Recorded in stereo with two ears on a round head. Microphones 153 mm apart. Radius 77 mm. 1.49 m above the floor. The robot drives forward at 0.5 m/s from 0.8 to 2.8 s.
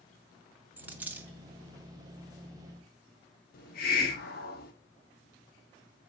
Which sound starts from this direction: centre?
A dropped coin, at 0.8 s.